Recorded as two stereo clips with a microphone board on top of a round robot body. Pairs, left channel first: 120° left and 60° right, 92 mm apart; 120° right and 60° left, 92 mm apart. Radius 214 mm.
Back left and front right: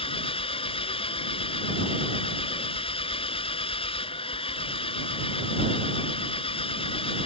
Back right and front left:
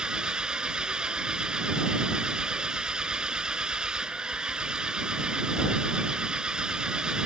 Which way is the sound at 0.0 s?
140° left.